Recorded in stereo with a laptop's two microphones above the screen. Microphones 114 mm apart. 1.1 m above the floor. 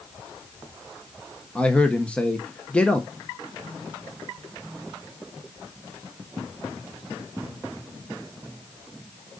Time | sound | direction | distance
1.6 | a man speaking | 10° left (ahead or behind) | 0.9 m